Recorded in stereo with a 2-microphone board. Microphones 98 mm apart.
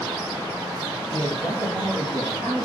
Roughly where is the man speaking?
Right.